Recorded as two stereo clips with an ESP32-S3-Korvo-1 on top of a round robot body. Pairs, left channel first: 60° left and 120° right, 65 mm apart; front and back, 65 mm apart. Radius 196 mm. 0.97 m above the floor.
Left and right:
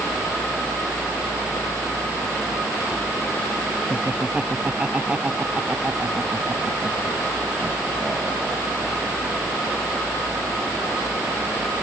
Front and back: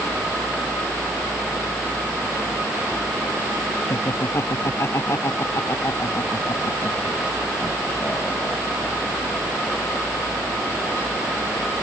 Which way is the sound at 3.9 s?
45° right.